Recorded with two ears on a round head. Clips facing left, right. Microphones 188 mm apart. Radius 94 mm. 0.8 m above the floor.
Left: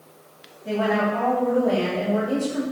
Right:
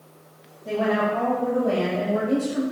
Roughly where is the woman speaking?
Centre.